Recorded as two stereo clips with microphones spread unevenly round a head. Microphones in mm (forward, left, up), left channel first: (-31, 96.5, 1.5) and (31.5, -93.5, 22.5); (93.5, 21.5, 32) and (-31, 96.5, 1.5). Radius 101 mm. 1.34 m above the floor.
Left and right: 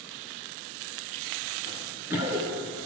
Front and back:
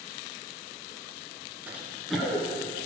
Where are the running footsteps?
60° left, 1.3 m; by 2.7 s 90° right, 1.7 m.